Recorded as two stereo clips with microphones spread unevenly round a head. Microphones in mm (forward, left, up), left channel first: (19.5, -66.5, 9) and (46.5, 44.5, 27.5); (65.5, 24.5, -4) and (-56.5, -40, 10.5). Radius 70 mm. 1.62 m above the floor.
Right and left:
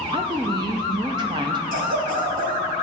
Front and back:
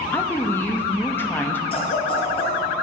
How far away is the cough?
About 1.4 m.